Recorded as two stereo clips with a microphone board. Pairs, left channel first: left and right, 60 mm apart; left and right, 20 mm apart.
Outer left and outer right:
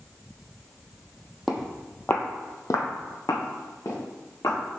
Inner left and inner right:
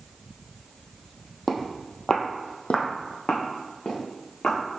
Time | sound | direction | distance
1.5 | footsteps | 5° right (ahead or behind) | 0.6 m